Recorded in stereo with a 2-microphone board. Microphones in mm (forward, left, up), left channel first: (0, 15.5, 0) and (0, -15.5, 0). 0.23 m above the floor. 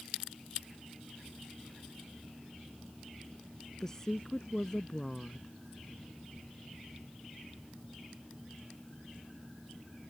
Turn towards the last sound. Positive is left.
turn(degrees=15)  # may be behind; listen again after turning